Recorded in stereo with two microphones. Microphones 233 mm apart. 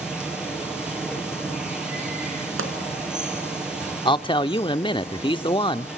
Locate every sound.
0.0 s running water: 5° right (ahead or behind), 6 m
2.6 s a pop: 65° right (ahead or behind), 3.5 m
4.0 s a man speaking: 20° left (ahead or behind), 0.8 m